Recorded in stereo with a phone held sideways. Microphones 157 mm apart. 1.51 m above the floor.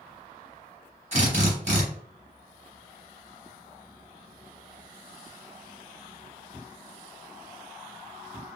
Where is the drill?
45° right (ahead or behind), 1.1 m.